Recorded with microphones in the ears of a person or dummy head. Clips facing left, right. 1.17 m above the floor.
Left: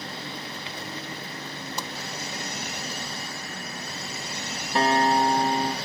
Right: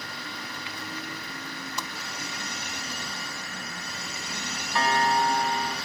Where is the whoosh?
30° left (ahead or behind), 0.9 m.